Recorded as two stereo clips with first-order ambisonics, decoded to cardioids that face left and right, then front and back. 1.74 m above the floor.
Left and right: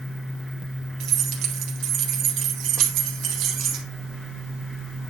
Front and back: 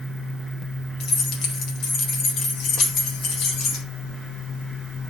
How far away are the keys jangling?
About 2.0 m.